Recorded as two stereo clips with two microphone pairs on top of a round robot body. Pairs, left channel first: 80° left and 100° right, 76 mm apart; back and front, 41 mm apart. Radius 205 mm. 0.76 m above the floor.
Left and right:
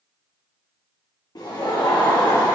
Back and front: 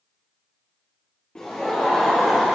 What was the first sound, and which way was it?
Laughter, 115° left.